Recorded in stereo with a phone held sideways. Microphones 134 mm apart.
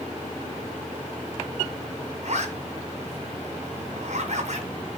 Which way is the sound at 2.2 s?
55° right (ahead or behind).